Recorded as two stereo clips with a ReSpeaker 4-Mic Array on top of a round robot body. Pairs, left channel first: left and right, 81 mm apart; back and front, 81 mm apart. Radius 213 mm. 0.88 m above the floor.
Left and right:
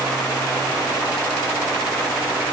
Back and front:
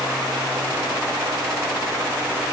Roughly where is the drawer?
No drawer in this recording.